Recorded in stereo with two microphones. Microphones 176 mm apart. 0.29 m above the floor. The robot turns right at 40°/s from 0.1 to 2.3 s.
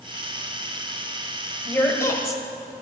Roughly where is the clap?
I don't hear a clap.